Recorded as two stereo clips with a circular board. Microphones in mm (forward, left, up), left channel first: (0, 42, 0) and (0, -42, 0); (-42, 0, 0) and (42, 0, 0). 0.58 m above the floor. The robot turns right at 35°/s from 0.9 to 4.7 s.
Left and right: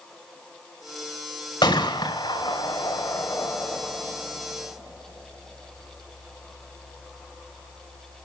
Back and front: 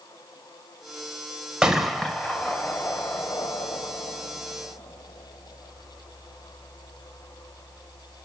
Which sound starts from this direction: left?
A gunshot, at 1.6 s.